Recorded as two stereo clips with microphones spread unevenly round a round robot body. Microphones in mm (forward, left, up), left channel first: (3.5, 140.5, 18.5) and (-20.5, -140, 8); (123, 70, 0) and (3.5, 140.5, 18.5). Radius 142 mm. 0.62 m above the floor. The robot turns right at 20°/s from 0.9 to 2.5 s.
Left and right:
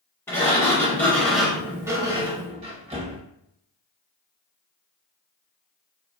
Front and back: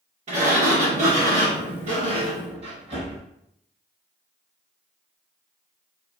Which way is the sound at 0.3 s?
165° left.